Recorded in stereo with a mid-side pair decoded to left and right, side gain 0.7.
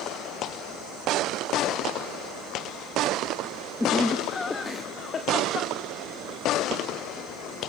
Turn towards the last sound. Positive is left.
turn(degrees=45)